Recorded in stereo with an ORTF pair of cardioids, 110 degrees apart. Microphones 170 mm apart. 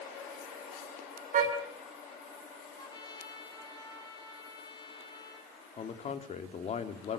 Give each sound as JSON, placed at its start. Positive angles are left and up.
{"t": 1.3, "sound": "a car horn", "azimuth_deg": -50, "distance_m": 5.0}
{"t": 2.8, "sound": "a trumpet", "azimuth_deg": 25, "distance_m": 8.5}
{"t": 5.8, "sound": "a man speaking", "azimuth_deg": 40, "distance_m": 2.5}